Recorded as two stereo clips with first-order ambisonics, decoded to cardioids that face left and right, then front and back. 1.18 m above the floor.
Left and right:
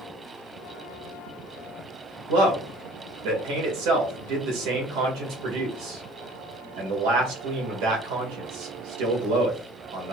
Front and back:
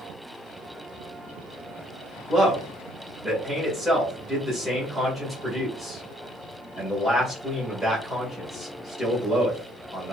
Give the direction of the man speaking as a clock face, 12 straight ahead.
3 o'clock.